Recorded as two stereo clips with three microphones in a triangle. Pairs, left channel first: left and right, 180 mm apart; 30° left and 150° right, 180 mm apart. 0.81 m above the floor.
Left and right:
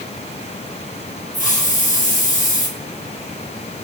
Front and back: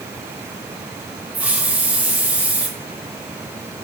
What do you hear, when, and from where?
1.3 s a hiss: 130° left, 1.3 m